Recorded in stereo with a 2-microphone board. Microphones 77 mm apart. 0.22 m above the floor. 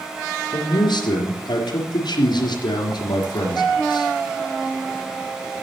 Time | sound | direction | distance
0.5 | a man speaking | 65° left (ahead or behind) | 4 m